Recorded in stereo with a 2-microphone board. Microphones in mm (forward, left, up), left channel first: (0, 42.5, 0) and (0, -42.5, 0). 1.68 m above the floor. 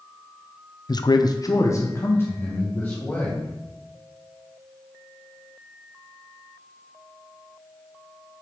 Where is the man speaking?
50° left (ahead or behind), 0.5 m; by 3.5 s 20° left (ahead or behind), 3 m.